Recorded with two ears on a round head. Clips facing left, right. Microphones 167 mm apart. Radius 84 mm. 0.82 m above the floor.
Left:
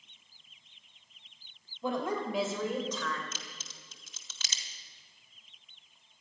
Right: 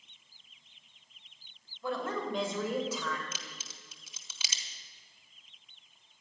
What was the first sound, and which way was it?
A woman speaking, 20° left (ahead or behind).